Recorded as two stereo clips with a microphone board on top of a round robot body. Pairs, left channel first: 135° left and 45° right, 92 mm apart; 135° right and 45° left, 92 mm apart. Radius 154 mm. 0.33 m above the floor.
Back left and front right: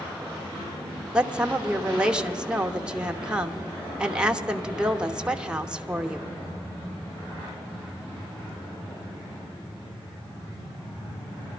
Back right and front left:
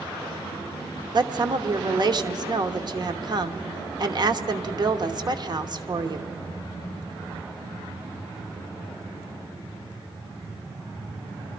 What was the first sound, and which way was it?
A woman speaking, 35° left.